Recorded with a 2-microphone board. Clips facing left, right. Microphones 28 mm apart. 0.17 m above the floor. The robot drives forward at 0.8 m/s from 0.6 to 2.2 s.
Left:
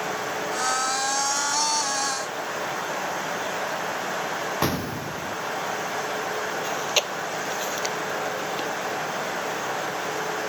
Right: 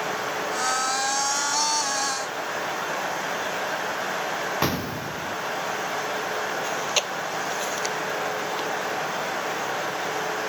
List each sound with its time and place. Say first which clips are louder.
4.6 s an explosion: even; 15° right (ahead or behind)
6.6 s chewing: left 1 dB; 10° left (ahead or behind)